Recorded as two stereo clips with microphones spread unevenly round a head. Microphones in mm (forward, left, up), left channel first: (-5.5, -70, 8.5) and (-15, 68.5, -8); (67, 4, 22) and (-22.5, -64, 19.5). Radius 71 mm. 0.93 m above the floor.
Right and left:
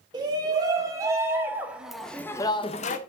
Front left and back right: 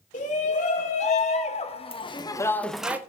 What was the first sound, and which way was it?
A shout, 30° left.